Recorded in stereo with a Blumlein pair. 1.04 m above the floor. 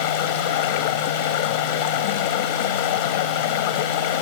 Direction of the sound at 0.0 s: 50° left.